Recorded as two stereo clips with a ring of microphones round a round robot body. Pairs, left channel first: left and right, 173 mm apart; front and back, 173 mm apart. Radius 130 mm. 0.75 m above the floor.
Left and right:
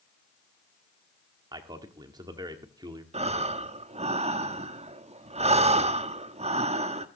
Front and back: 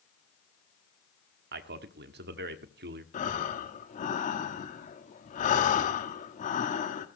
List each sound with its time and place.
1.5 s a man speaking: 160° right, 1.3 m
3.1 s breathing: 45° right, 1.4 m